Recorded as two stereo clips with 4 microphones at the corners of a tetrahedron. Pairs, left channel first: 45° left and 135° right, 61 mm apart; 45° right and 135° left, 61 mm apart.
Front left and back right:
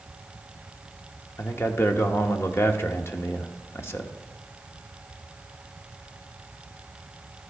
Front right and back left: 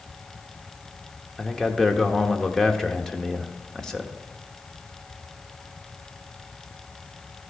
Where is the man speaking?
35° left, 0.9 m.